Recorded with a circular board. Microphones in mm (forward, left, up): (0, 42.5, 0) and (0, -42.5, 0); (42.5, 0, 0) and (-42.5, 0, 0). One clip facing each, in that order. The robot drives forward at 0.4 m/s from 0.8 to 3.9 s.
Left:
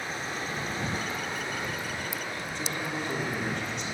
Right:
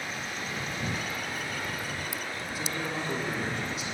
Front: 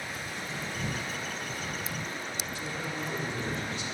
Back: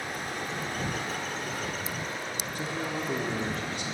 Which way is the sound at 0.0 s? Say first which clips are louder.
Left 2 dB, back 4 dB; 150° left.